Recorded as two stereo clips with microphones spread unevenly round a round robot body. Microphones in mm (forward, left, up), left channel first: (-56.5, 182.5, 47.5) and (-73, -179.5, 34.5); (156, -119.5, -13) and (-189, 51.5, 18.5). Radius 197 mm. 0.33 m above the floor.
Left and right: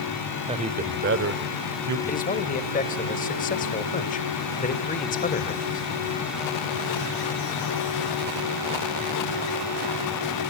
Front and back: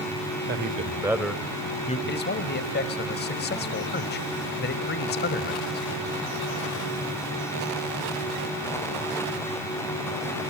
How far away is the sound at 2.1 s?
About 1.3 m.